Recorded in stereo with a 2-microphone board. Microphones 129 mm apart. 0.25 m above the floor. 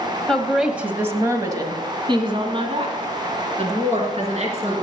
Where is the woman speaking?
5° left (ahead or behind), 1.2 m; by 4.8 s 55° right (ahead or behind), 3.5 m.